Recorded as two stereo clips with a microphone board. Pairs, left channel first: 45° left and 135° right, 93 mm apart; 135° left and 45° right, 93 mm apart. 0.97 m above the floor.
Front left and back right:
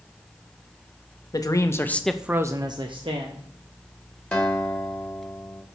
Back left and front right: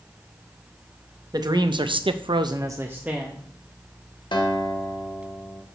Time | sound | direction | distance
1.3 | a man speaking | 5° right | 0.9 m
4.3 | a guitar | 125° left | 1.5 m